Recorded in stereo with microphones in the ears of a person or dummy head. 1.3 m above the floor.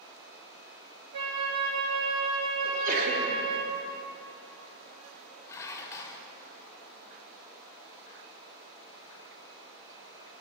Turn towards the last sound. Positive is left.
turn(degrees=15)  # may be behind; listen again after turning